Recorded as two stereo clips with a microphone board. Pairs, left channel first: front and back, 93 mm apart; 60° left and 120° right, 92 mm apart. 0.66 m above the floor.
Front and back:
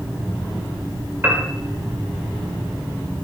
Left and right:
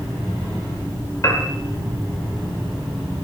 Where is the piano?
115° left, 1.2 m.